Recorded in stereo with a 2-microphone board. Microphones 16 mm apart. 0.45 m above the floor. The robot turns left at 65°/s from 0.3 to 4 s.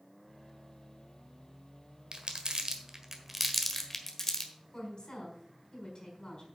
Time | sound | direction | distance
2.1 | crumpling | 60° right (ahead or behind) | 1.5 m
4.7 | a woman speaking | 50° left (ahead or behind) | 5 m